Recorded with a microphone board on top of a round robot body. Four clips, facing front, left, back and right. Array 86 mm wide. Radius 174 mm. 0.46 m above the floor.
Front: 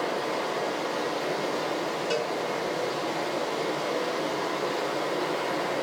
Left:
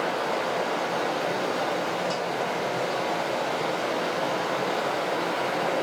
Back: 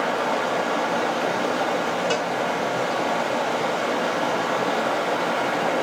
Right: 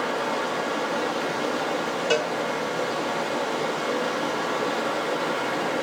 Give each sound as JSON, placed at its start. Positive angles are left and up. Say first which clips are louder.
{"t": 0.0, "sound": "running water", "louder": "right 1 dB, back 6 dB", "azimuth_deg": 170, "distance_m": 0.7}
{"t": 2.1, "sound": "a cowbell", "louder": "right 5 dB, back 4 dB", "azimuth_deg": -110, "distance_m": 0.5}